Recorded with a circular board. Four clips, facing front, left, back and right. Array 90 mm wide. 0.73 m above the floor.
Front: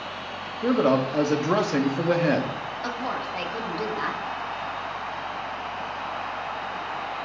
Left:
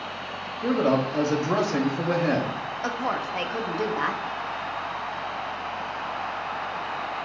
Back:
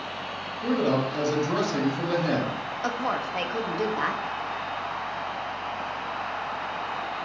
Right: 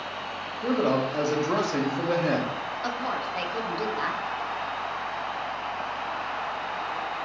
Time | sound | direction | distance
0.6 | a man speaking | 5° left | 1.1 m
2.8 | a woman speaking | 130° left | 0.9 m